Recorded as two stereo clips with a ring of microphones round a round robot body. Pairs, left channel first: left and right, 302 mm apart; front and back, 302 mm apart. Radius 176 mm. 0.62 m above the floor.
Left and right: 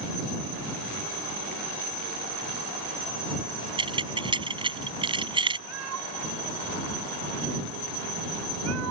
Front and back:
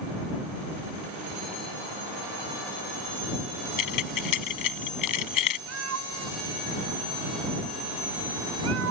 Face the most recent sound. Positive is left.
turn(degrees=-140)